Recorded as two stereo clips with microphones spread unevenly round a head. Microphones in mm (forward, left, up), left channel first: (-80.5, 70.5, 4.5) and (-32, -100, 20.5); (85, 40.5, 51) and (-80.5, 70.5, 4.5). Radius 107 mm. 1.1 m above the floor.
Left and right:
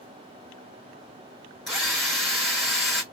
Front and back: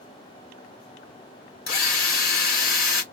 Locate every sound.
1.7 s a drill: 15° left, 2.5 m